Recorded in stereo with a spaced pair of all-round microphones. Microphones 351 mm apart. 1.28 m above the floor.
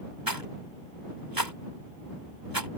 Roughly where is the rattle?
Right.